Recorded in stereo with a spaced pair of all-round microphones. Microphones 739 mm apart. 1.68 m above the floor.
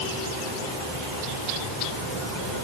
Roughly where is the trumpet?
I don't hear a trumpet.